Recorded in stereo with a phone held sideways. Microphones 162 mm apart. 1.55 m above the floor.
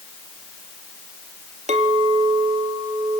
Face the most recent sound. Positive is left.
turn(degrees=-45)  # may be behind; listen again after turning